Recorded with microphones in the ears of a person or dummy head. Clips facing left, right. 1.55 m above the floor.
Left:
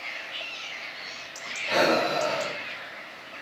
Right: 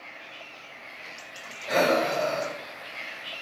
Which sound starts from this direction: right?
Breathing, at 1.7 s.